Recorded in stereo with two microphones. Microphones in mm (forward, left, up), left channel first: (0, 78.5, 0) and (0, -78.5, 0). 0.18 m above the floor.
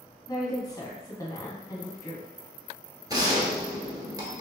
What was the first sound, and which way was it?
A woman speaking, 25° left (ahead or behind).